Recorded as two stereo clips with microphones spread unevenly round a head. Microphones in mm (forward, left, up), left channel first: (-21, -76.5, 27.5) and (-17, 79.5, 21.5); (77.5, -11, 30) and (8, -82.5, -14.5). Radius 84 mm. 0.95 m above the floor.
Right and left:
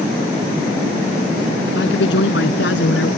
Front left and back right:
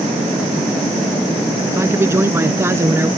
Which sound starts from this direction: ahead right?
A man speaking, at 1.7 s.